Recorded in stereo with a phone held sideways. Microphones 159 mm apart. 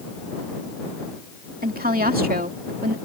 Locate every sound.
1.6 s a woman speaking: 70° right (ahead or behind)